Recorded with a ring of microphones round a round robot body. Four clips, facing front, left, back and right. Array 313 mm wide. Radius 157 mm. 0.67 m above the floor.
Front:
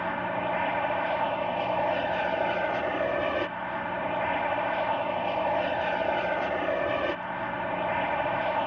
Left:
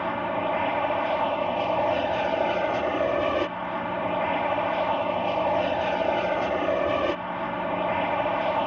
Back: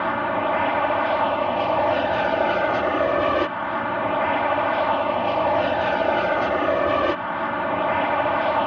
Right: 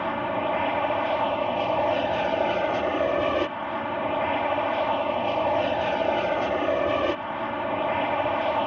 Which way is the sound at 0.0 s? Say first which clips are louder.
Even, back 7 dB; 170° right.